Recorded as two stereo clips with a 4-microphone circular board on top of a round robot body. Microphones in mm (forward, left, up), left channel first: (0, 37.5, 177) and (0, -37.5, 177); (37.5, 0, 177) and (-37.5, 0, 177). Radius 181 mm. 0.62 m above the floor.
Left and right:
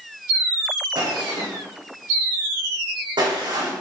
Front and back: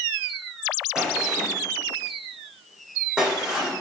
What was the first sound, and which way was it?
A gunshot, 100° right.